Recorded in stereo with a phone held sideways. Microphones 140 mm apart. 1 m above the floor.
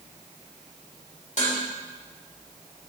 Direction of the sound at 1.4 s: 55° left (ahead or behind).